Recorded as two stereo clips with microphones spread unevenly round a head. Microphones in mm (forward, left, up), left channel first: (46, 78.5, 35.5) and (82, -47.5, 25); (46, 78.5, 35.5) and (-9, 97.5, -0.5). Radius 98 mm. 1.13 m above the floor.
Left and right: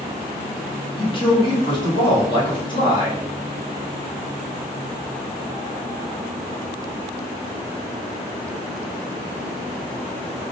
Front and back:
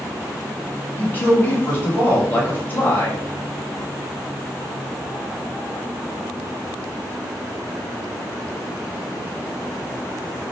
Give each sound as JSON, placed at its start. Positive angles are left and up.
{"t": 1.0, "sound": "a man speaking", "azimuth_deg": 55, "distance_m": 1.4}